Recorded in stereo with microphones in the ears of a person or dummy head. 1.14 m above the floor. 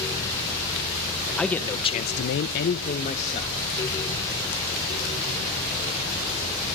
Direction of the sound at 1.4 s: 5° left (ahead or behind).